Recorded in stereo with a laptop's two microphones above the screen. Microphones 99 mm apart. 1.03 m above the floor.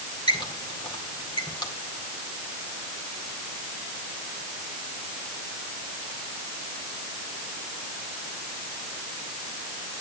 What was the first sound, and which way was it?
A squeak, 40° left (ahead or behind).